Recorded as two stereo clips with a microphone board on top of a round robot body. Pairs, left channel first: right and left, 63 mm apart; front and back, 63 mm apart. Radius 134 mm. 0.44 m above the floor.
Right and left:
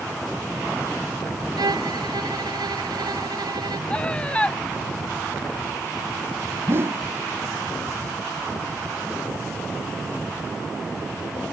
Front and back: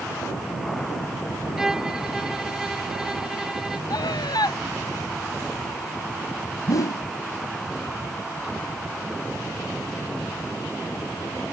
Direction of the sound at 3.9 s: 15° right.